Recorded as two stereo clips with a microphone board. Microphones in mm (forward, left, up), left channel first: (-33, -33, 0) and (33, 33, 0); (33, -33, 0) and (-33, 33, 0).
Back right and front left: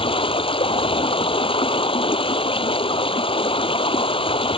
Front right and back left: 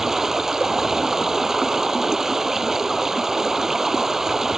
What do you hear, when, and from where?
0.0 s running water: 140° right